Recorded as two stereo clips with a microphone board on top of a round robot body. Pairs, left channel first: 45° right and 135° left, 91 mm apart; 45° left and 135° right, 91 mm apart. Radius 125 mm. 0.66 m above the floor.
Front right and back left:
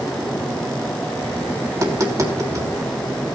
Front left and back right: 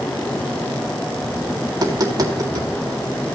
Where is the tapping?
175° right, 1.9 m.